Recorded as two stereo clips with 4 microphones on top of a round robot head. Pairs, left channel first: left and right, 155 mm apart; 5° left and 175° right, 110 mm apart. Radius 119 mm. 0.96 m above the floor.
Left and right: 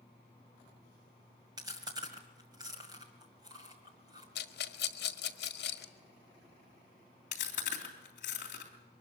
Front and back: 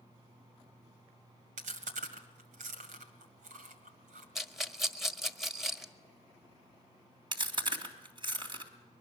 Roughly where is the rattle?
Left.